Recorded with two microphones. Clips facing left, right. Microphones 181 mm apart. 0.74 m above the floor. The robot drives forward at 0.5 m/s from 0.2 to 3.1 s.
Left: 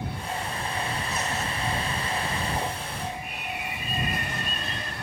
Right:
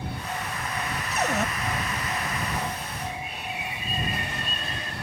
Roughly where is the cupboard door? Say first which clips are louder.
Right 4 dB; right.